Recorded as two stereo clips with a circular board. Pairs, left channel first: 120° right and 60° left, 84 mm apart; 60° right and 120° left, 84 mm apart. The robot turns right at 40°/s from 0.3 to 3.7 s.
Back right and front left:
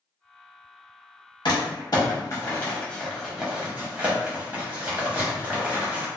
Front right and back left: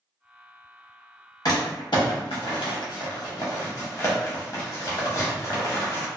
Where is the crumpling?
100° right, 0.9 m; by 6.1 s 10° right, 0.9 m.